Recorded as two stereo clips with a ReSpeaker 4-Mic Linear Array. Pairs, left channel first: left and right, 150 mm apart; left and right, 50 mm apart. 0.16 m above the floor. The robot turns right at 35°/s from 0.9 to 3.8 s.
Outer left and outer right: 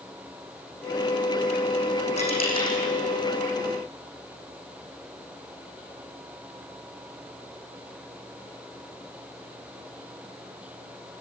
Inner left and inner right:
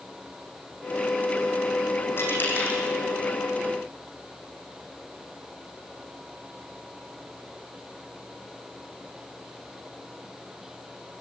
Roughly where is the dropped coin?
Left.